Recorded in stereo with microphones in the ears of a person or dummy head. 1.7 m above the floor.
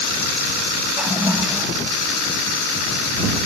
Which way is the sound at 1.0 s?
10° right (ahead or behind).